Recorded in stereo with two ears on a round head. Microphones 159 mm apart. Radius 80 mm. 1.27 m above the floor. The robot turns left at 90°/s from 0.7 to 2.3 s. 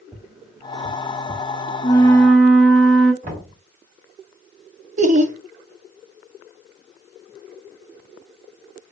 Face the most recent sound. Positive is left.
turn(degrees=-45)  # may be behind; listen again after turning